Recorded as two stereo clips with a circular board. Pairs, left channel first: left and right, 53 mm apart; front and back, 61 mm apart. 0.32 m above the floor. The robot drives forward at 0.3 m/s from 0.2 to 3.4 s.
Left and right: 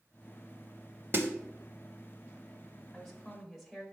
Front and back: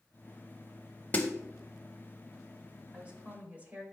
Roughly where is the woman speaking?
Behind.